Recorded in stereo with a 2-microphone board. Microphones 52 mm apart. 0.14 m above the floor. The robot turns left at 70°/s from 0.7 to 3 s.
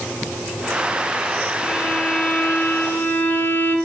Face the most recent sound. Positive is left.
turn(degrees=85)